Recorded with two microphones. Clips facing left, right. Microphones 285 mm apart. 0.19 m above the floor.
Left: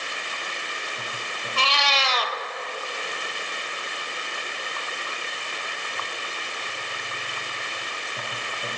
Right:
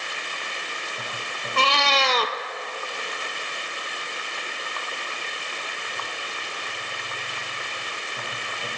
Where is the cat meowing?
55° right (ahead or behind), 0.7 m.